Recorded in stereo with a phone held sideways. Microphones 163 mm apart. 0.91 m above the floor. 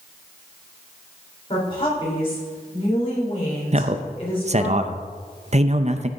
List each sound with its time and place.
1.5 s a woman speaking: 35° left (ahead or behind), 3.5 m
3.7 s a man speaking: 45° right (ahead or behind), 0.6 m